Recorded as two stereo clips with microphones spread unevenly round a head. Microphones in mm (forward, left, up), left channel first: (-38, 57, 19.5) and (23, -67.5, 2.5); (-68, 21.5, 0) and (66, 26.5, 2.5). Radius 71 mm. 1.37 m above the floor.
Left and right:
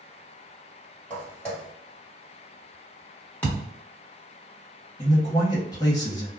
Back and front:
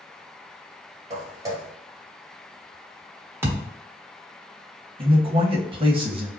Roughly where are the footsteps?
Ahead left.